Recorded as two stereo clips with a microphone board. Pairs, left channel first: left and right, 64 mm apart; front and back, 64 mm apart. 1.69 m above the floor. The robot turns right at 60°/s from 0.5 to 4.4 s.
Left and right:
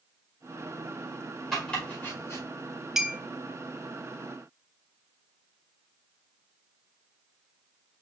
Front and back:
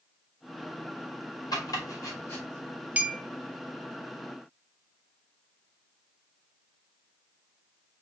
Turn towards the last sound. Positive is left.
turn(degrees=-80)